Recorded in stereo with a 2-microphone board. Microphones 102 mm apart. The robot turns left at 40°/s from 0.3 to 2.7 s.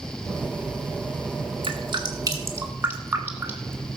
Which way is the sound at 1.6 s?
60° right (ahead or behind).